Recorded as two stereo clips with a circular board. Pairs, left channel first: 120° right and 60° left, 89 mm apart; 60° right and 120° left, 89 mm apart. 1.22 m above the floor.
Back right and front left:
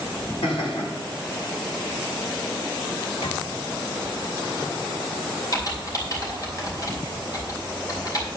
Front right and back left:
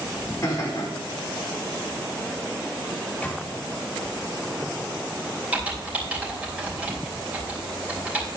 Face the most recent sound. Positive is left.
turn(degrees=-165)